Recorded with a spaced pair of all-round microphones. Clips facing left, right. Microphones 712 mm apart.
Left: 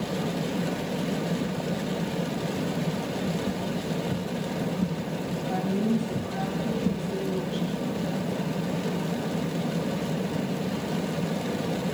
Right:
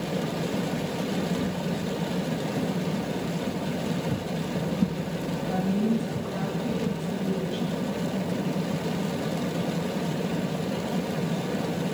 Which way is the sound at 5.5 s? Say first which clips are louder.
Right 1 dB; 10° right (ahead or behind).